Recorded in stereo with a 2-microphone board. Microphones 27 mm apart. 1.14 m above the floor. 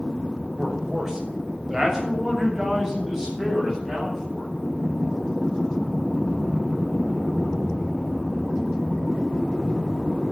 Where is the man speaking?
25° right (ahead or behind), 6 m; by 4.5 s 20° right (ahead or behind), 10.5 m.